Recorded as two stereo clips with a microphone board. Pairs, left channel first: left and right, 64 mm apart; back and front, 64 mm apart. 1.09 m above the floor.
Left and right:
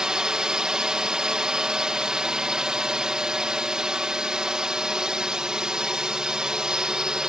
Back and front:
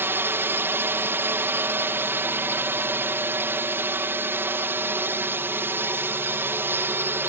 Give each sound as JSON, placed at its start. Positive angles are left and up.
{"t": 0.0, "sound": "a drone", "azimuth_deg": -20}